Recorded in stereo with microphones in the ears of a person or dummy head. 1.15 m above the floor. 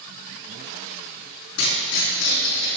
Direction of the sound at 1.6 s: 70° left (ahead or behind).